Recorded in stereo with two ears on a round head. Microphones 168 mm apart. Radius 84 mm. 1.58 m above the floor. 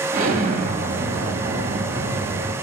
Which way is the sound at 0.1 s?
45° right (ahead or behind).